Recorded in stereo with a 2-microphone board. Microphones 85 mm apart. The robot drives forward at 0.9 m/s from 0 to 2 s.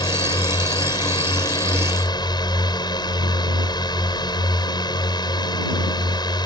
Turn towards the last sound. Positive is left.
turn(degrees=55)  # may be behind; listen again after turning